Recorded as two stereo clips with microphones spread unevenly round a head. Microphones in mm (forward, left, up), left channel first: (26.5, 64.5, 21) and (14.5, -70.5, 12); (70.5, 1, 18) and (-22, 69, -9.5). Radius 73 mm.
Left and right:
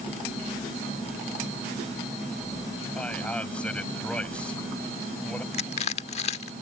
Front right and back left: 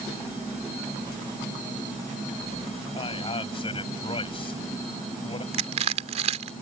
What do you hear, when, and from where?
3.0 s a man speaking: 5° left
5.5 s crushing: 120° left